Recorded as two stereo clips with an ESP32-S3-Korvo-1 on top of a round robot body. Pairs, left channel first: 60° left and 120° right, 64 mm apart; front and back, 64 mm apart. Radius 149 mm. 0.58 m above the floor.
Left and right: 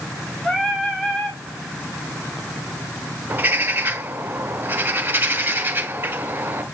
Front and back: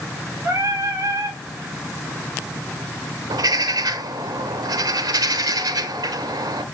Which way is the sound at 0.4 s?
140° left.